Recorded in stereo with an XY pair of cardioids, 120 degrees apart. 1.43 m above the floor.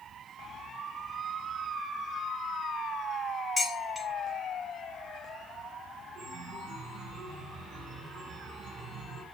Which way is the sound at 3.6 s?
20° left.